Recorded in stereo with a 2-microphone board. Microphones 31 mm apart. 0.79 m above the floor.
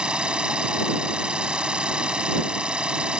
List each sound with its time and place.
0.0 s an engine running: 35° right (ahead or behind)